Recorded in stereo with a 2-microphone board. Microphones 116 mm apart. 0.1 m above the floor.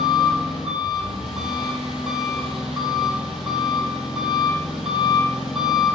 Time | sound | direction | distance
0.0 | an engine running | 5° right (ahead or behind) | 1.3 m